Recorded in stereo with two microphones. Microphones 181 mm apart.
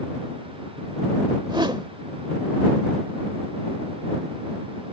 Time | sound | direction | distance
1.5 | a whoosh | 25° right (ahead or behind) | ?